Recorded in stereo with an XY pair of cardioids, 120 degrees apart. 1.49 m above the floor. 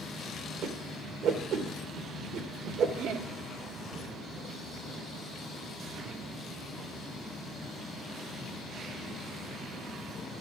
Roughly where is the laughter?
Right.